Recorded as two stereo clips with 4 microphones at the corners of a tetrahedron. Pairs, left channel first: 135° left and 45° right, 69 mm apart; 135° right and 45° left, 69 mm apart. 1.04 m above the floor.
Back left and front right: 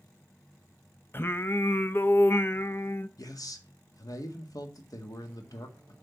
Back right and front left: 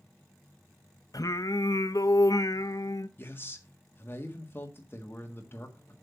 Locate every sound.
1.1 s singing: 165° right, 0.6 m
3.2 s a man speaking: 165° left, 1.7 m